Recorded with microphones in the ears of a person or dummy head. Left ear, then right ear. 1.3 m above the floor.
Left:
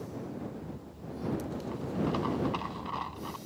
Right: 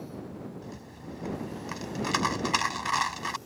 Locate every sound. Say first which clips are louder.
0.6 s a rattle: right 1 dB; 65° right (ahead or behind)